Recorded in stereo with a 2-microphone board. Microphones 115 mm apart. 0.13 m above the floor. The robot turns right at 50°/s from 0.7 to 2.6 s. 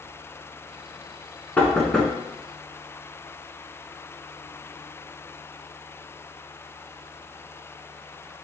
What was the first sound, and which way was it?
Knocking, 15° left (ahead or behind).